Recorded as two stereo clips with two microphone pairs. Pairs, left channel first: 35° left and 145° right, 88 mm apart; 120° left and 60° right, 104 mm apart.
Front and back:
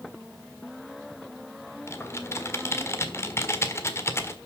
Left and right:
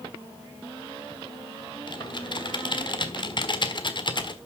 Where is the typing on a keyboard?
85° left, 1.5 m.